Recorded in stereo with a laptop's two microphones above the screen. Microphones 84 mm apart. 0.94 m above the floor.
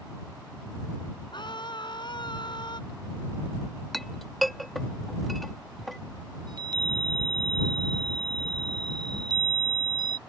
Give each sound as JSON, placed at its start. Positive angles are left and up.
{"t": 1.3, "sound": "a scream", "side_deg": 65}
{"t": 3.9, "sound": "a clink", "side_deg": 0}
{"t": 6.5, "sound": "a chime", "side_deg": -55}